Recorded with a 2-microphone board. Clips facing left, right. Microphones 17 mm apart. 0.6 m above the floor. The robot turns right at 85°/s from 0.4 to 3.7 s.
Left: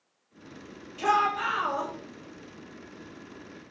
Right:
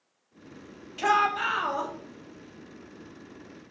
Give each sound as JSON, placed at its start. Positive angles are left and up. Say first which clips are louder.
{"t": 1.0, "sound": "a shout", "louder": "right 1 dB", "azimuth_deg": -110, "distance_m": 0.8}